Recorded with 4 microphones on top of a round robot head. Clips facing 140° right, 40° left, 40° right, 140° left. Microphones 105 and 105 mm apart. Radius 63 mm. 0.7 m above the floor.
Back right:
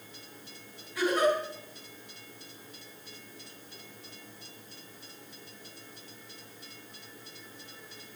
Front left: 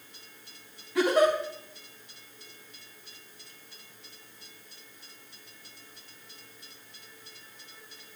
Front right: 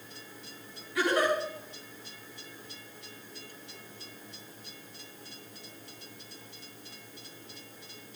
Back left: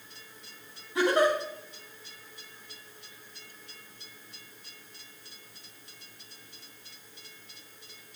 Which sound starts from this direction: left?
A giggle, at 0.9 s.